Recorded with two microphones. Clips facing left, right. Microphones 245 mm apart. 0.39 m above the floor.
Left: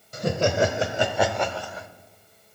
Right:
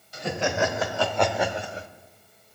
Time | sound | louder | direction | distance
0.1 | laughter | left 4 dB | 50° left (ahead or behind) | 1.6 m